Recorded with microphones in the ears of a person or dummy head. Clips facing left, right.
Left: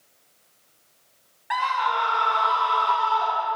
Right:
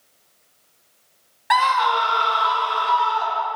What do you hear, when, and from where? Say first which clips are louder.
1.5 s a scream: right 6 dB; 60° right (ahead or behind), 0.9 m; by 3.5 s 25° right (ahead or behind), 2.5 m